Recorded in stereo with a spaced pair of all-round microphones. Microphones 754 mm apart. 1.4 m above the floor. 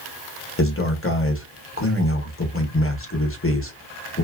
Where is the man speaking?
20° left (ahead or behind), 0.8 m.